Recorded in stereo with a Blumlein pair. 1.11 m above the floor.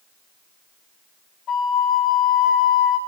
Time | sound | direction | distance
1.5 | a flute | 30° left | 0.8 m